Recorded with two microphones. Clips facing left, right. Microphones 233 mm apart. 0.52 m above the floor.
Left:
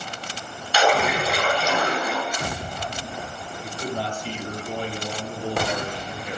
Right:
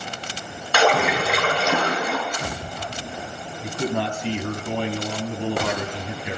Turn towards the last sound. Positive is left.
turn(degrees=-75)  # may be behind; listen again after turning